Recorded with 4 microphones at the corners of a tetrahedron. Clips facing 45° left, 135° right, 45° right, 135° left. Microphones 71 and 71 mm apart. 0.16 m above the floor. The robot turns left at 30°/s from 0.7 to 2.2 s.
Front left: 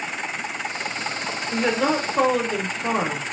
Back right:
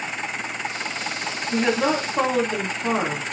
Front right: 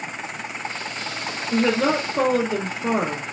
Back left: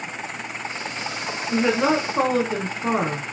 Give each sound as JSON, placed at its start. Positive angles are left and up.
{"t": 1.5, "sound": "a woman speaking", "azimuth_deg": 160, "distance_m": 1.2}